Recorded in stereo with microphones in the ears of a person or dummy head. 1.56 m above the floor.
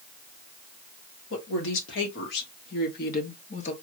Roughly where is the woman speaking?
Left.